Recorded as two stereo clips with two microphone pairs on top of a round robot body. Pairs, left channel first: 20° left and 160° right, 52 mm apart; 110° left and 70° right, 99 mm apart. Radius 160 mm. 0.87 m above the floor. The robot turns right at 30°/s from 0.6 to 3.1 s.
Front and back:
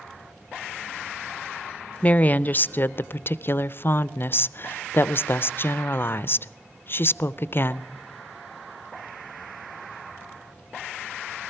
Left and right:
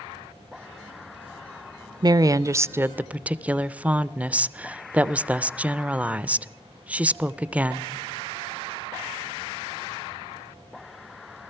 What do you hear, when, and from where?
2.0 s a woman speaking: 20° right, 0.5 m; by 7.9 s 10° left, 0.5 m